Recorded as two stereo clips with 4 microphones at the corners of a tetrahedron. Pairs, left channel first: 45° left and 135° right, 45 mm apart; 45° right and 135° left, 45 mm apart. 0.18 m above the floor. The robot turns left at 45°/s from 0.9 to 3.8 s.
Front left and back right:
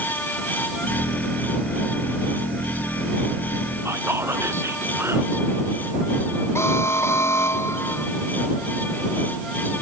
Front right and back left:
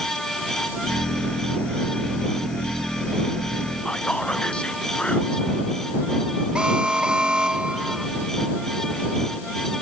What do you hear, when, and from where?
3.9 s whispering: 115° right
6.5 s an alarm: 65° left